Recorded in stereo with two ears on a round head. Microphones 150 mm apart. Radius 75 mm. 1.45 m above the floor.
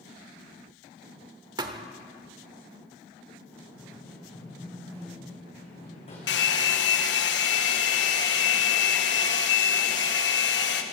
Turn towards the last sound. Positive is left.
turn(degrees=80)